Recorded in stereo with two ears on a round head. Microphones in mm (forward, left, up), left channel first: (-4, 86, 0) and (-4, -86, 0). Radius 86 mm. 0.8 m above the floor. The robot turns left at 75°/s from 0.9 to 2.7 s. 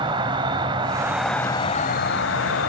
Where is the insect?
155° right, 1.3 m; by 2.7 s 70° left, 1.3 m.